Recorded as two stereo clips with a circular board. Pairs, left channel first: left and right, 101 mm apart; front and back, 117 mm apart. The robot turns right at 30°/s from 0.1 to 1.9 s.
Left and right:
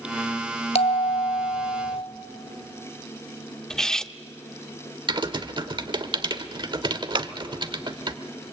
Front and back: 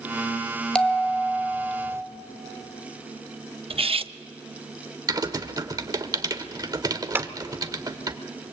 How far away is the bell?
About 1.3 m.